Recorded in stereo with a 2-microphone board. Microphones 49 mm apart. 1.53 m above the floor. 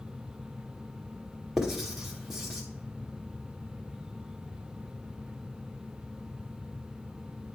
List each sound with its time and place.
1.6 s writing: 10° right (ahead or behind), 1.3 m